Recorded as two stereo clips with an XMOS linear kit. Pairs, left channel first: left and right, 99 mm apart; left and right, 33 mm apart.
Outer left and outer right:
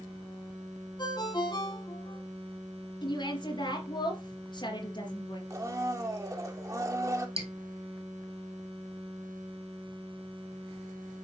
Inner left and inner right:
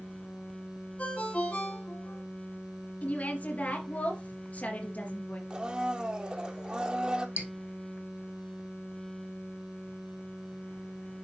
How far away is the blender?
About 1.1 m.